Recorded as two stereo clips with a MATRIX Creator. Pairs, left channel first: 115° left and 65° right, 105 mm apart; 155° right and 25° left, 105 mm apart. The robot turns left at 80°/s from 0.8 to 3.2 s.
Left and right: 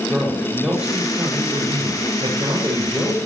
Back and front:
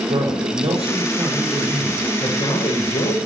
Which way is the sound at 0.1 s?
10° left.